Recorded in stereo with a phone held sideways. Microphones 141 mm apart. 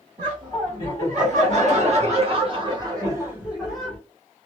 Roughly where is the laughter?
Right.